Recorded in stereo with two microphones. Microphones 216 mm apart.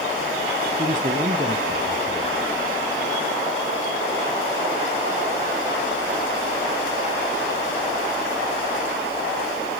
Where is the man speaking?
35° right (ahead or behind), 1.8 m.